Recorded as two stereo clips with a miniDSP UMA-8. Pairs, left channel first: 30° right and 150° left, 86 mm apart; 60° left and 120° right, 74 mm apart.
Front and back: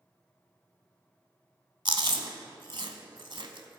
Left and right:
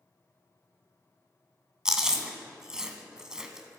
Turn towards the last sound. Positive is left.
turn(degrees=160)